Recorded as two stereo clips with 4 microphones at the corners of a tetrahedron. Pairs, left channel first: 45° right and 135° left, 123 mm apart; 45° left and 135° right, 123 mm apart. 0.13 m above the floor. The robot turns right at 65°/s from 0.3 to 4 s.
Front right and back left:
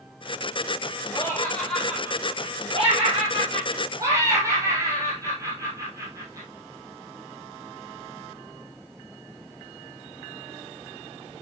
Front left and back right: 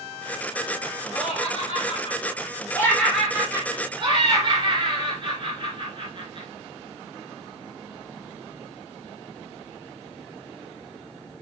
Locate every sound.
1.1 s laughter: 5° left, 2.5 m; by 6.5 s 170° right, 2.5 m